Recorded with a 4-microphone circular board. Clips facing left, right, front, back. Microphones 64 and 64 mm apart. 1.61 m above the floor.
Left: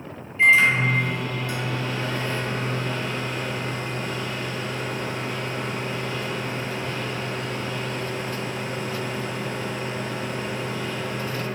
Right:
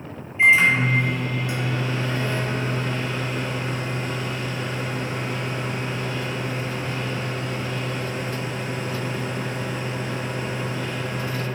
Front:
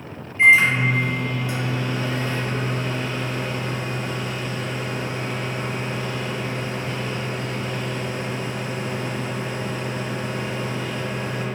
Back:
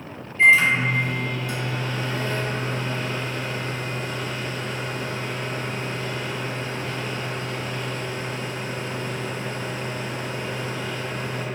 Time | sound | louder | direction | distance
0.4 | a microwave | right 1 dB, front 1 dB | 45° right | 0.8 m